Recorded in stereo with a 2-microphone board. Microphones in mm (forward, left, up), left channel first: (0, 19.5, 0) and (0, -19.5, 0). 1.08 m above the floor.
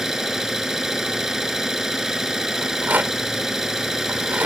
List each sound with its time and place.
0.0 s an engine running: 10° right (ahead or behind)
2.6 s a rattle: 55° right (ahead or behind)